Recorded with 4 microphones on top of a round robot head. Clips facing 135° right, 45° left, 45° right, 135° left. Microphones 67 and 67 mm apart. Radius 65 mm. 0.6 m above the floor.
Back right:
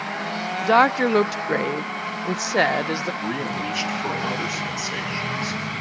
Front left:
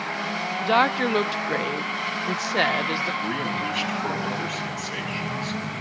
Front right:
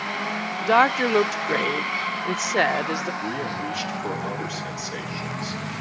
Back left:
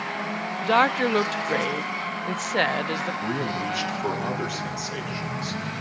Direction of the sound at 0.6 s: 110° right.